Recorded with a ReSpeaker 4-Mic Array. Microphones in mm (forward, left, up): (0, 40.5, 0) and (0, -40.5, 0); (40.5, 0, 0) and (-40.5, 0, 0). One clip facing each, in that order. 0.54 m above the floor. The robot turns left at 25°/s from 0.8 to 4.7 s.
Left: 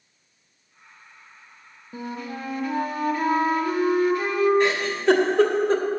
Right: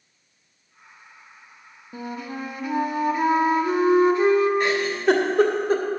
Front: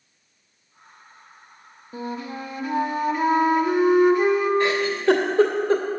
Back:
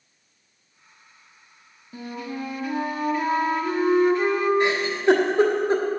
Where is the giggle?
155° right, 1.3 m.